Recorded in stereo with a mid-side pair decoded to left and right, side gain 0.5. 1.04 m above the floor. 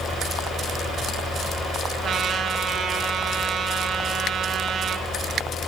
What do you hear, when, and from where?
0.0 s a fan: 65° left, 6 m
2.0 s a trumpet: 50° right, 4 m